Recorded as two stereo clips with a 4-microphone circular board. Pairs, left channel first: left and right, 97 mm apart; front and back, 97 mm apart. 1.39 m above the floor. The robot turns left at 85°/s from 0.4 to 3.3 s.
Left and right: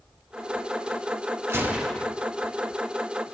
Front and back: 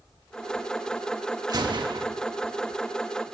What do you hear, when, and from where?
1.5 s a gunshot: 145° right, 1.0 m; by 2.1 s 170° left, 1.0 m